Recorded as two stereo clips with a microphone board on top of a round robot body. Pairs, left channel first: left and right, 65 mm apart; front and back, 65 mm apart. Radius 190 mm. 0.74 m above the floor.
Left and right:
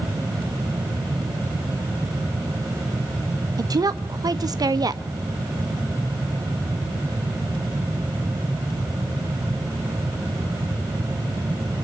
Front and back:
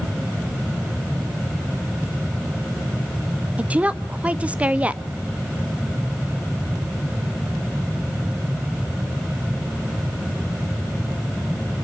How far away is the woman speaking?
About 1.4 m.